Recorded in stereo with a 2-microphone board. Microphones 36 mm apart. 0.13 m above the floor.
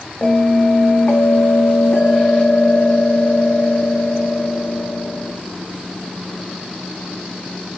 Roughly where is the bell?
Left.